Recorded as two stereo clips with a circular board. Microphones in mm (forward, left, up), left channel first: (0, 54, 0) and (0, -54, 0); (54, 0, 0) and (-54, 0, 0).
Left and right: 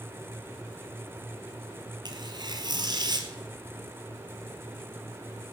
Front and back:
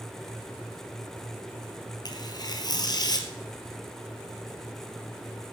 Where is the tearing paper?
45° right, 1.7 m.